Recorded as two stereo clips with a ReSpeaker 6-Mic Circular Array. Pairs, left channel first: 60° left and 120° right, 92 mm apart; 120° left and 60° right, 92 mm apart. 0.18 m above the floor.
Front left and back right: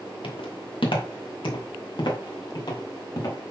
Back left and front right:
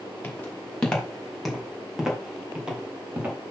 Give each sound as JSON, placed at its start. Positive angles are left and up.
{"t": 0.2, "sound": "footsteps", "azimuth_deg": 45, "distance_m": 3.5}